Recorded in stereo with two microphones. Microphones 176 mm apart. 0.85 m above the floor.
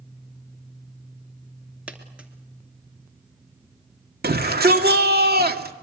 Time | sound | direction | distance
1.9 | a dropped coin | 5° right (ahead or behind) | 2.5 m
4.2 | a shout | 65° right (ahead or behind) | 2.0 m